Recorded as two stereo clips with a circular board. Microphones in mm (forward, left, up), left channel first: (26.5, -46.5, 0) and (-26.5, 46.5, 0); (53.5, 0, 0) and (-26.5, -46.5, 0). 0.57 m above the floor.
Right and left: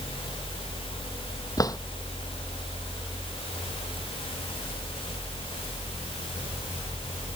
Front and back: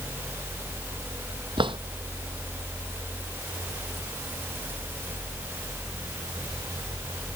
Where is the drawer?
115° right.